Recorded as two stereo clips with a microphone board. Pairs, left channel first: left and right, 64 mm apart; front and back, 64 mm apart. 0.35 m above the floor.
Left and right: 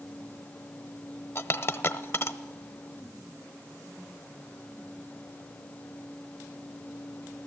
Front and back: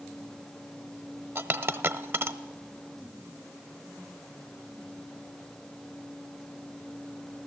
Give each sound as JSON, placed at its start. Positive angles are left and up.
{"t": 1.4, "sound": "a dropped coin", "azimuth_deg": 135, "distance_m": 0.6}